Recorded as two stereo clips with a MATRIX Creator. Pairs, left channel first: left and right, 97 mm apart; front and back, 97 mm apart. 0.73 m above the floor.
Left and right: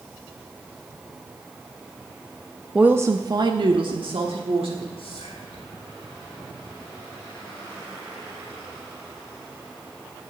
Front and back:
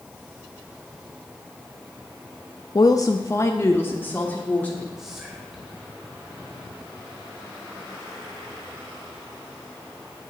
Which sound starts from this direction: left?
Whispering, at 5.0 s.